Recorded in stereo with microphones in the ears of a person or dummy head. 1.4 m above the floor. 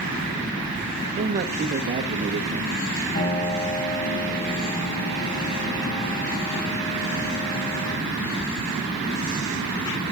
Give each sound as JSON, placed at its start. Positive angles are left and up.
{"t": 1.2, "sound": "a man speaking", "side_deg": -40, "distance_m": 0.9}
{"t": 3.1, "sound": "a piano", "side_deg": 35, "distance_m": 6.5}